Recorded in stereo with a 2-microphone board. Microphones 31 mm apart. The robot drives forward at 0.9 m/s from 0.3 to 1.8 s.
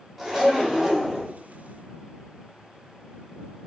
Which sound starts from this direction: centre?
A zipper, at 0.2 s.